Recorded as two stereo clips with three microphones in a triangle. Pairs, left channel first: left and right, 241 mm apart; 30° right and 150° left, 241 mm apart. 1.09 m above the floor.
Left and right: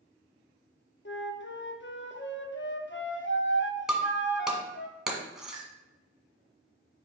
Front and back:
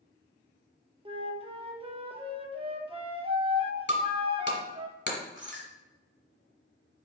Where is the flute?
90° left, 0.7 m.